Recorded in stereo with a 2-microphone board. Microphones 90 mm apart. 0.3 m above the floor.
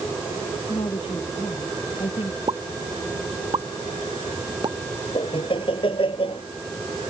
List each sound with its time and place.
0.7 s a woman speaking: 80° left
2.5 s a pop: 55° right (ahead or behind)
5.2 s laughter: 75° left (ahead or behind)